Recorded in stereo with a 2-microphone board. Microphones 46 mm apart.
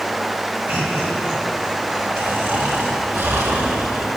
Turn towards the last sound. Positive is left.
turn(degrees=-70)  # may be behind; listen again after turning